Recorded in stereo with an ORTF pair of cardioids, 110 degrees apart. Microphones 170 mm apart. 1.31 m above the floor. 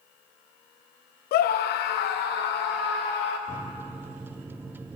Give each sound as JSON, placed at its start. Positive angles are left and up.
{"t": 1.3, "sound": "a scream", "azimuth_deg": 65, "distance_m": 0.6}
{"t": 3.5, "sound": "a microwave", "azimuth_deg": -10, "distance_m": 0.7}